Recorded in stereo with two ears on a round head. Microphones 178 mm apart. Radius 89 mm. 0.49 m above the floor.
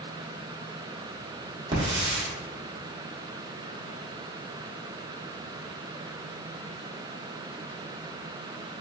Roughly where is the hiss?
Right.